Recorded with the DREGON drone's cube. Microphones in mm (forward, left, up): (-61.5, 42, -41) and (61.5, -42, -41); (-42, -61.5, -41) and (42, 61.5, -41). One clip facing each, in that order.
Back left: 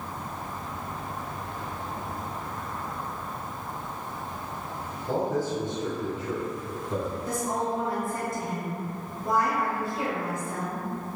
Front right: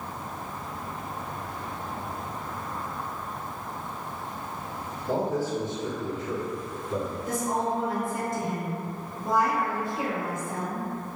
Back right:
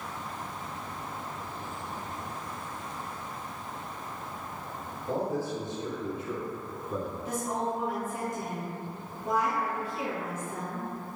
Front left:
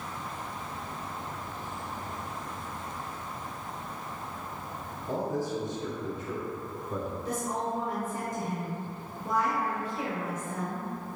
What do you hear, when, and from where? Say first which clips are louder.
5.1 s a man speaking: even, even; 105° right, 1.5 m; by 7.2 s 140° left, 1.2 m
7.2 s a woman speaking: front right 3 dB, back right 1 dB; 60° right, 1.6 m